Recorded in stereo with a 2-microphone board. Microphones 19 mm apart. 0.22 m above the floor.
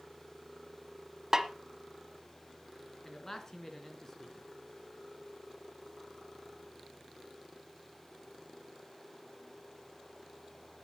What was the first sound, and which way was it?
A snare drum, 25° right (ahead or behind).